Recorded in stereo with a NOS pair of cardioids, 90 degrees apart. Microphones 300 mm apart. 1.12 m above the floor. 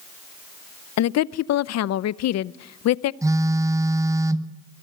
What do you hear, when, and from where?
1.0 s a woman speaking: 65° left, 0.7 m
3.2 s a phone buzzing: 10° right, 1.1 m